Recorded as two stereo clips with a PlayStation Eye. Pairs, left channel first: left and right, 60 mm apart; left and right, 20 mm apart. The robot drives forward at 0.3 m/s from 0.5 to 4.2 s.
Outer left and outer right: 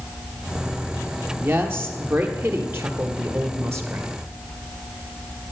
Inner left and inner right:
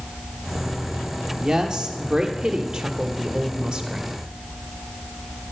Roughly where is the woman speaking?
Right.